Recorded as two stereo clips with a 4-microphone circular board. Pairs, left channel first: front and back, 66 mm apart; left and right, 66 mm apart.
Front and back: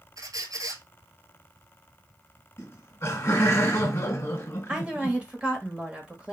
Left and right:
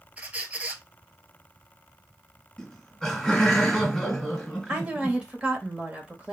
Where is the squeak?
160° right, 0.8 m.